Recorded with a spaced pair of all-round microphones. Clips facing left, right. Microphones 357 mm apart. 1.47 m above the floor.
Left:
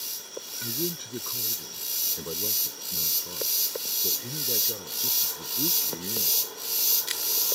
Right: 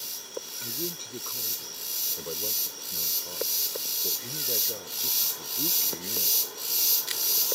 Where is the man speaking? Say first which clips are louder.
Left 9 dB; 25° left (ahead or behind); by 6.4 s 15° left (ahead or behind).